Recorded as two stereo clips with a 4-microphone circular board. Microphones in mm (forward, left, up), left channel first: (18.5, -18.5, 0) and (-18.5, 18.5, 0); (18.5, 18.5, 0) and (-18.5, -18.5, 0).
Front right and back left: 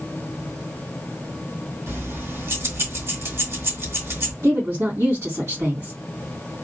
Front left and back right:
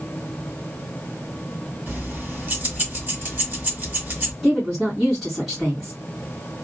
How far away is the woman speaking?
About 2 m.